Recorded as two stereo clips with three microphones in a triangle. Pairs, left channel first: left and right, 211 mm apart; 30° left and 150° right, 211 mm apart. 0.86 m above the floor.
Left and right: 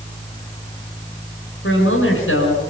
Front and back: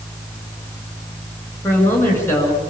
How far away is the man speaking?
About 9 m.